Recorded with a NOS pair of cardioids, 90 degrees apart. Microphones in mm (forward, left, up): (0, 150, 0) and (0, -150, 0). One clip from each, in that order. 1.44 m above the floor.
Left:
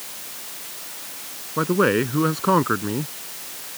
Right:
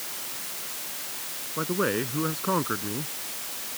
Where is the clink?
No clink in this recording.